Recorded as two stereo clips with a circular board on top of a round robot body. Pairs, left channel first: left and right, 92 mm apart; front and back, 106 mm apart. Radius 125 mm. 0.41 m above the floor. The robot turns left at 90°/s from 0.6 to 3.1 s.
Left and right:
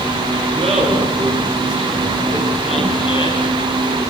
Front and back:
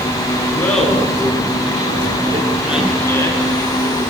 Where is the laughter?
70° right, 9.5 m; by 4.0 s 65° left, 9.5 m.